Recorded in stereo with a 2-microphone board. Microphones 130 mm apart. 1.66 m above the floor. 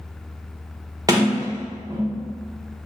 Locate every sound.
1.1 s a sliding door: 25° right (ahead or behind), 1.0 m